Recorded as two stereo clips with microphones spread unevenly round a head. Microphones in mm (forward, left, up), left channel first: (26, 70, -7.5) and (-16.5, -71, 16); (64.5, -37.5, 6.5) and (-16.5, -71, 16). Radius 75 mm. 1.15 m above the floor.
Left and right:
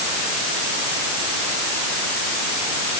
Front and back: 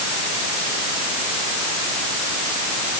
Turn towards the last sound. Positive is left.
No sound to turn to.